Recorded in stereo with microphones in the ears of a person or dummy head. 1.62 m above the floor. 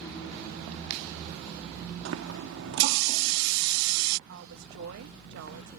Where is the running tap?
65° right (ahead or behind).